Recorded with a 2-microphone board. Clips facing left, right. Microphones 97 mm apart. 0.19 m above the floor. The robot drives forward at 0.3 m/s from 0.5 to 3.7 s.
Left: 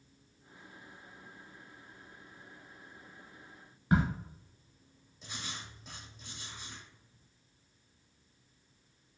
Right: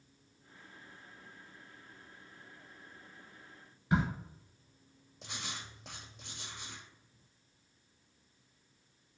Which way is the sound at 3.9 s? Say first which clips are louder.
Left 2 dB; 55° left (ahead or behind).